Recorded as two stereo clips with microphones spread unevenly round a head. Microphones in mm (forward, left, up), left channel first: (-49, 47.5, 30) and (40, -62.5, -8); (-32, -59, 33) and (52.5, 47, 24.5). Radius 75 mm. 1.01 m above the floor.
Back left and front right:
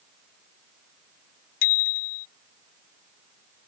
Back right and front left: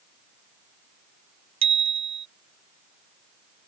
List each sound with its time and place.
1.6 s a bicycle bell: 105° left